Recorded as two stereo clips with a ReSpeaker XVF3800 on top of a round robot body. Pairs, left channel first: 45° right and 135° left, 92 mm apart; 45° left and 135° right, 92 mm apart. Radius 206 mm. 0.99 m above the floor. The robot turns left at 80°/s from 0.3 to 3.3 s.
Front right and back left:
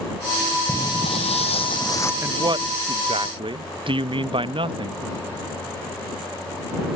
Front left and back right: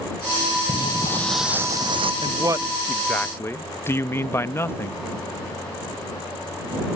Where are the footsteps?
25° left; by 2.1 s 110° right.